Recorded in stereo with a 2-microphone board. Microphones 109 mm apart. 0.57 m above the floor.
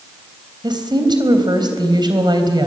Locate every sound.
0.6 s a woman speaking: 40° right (ahead or behind), 3.5 m